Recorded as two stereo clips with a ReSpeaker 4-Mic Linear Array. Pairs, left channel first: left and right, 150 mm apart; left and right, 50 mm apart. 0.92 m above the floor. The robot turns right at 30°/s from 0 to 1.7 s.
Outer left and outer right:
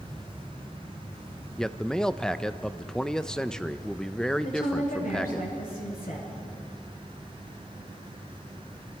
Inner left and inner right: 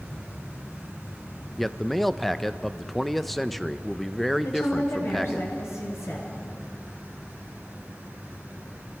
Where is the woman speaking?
80° left, 9.5 m.